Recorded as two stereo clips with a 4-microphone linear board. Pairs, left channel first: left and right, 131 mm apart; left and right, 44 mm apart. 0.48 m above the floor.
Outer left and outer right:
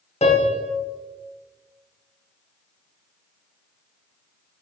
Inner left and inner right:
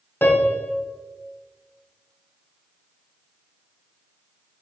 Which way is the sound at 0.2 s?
55° left (ahead or behind).